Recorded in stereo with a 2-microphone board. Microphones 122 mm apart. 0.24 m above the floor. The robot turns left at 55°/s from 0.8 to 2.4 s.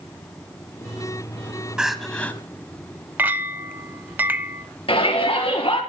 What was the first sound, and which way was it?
Crying, 170° right.